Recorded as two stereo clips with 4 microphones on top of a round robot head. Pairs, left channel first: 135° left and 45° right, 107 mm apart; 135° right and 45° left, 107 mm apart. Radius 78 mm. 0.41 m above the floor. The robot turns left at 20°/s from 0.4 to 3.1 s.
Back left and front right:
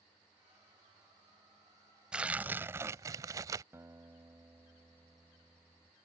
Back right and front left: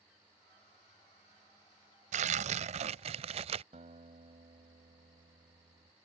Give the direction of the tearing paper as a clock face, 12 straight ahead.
11 o'clock.